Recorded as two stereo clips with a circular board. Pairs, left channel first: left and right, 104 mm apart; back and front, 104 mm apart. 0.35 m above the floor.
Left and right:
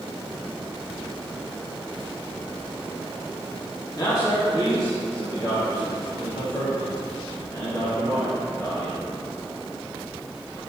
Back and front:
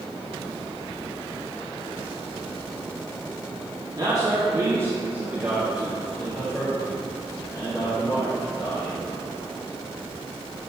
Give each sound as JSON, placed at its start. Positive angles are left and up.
{"t": 4.0, "sound": "a man speaking", "azimuth_deg": 45, "distance_m": 2.5}